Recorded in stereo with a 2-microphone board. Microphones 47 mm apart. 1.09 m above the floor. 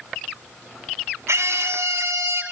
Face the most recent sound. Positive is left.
turn(degrees=-90)